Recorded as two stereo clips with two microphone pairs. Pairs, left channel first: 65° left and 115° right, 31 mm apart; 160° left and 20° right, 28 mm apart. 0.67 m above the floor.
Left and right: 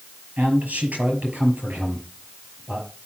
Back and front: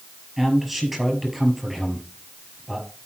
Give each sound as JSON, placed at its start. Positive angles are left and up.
{"t": 0.4, "sound": "a man speaking", "azimuth_deg": -115, "distance_m": 5.5}